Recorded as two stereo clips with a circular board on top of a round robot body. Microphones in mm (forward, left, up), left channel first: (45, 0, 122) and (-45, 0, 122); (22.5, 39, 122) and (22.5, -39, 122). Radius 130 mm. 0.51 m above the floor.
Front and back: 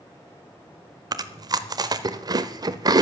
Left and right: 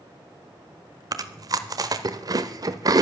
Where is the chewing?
130° right, 0.8 m.